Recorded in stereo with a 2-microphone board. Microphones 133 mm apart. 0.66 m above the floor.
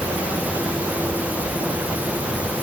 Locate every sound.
Only background noise.